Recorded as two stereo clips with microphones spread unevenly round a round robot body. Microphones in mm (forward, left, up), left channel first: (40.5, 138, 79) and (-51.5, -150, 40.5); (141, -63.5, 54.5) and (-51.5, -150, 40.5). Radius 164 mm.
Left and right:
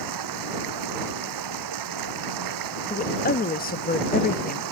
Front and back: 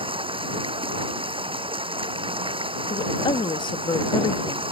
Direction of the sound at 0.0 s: 90° right.